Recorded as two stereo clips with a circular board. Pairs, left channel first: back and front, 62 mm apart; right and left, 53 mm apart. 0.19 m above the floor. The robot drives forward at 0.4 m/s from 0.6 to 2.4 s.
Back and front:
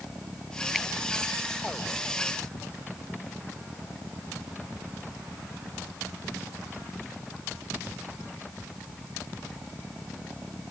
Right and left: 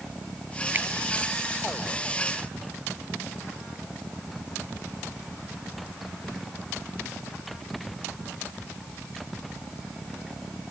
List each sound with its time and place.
0.7 s a finger snap: 90° left; by 0.9 s 95° left